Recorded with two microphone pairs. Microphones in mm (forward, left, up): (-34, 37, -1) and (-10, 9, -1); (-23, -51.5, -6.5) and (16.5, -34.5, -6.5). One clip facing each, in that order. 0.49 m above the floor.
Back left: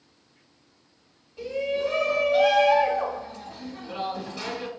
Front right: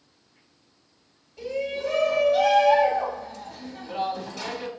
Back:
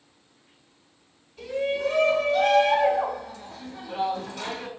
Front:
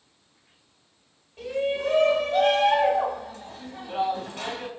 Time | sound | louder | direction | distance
1.4 | a shout | back left 2 dB, even | 60° left | 1.9 m